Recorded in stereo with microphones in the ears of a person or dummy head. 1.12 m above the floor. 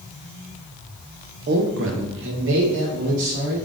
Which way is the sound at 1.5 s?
40° right (ahead or behind).